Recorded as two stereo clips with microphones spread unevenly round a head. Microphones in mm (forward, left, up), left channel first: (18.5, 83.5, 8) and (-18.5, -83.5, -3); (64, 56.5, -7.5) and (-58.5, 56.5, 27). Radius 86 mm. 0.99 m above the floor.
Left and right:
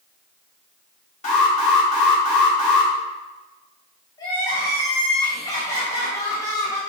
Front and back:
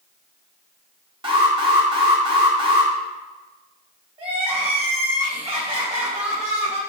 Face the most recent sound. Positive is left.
turn(degrees=145)